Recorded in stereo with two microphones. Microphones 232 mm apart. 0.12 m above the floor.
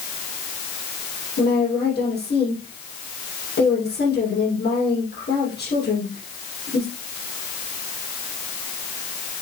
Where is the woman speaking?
45° left (ahead or behind), 5.5 m.